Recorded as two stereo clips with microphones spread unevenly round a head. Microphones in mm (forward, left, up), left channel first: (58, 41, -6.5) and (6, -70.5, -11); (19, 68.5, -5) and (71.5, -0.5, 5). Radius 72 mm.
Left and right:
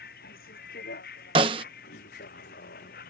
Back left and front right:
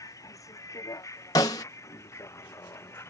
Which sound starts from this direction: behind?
A snare drum, at 1.4 s.